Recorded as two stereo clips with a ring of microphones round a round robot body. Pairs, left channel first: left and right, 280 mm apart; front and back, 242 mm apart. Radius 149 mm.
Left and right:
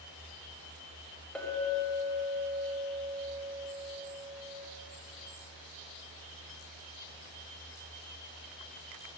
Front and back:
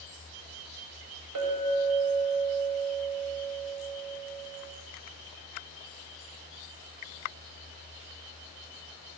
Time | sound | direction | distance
1.4 | a clink | 175° left | 2.0 m